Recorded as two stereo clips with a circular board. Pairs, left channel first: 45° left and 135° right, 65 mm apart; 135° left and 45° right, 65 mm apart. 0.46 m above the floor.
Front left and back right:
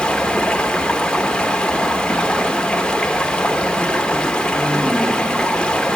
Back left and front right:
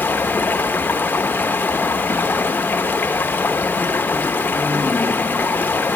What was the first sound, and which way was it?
Running water, 105° left.